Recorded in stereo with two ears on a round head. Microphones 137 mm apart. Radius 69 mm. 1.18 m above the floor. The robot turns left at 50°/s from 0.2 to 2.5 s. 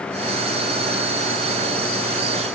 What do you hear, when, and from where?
Only background noise.